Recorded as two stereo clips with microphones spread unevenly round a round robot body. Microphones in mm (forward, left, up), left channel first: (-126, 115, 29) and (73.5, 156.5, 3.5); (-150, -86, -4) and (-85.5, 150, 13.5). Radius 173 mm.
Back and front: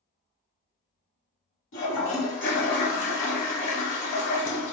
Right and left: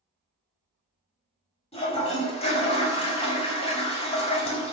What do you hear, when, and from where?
1.7 s a toilet flushing: 165° right, 1.1 m